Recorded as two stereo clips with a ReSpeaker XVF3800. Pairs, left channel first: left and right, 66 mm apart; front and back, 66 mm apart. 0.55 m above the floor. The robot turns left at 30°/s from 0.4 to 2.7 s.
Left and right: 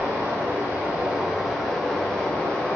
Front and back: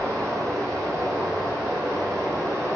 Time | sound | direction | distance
0.0 | running water | 145° right | 1.1 m